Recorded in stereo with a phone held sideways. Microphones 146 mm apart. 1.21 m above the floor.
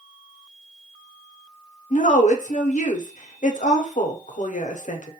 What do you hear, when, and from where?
1.9 s a woman speaking: 55° left (ahead or behind), 0.5 m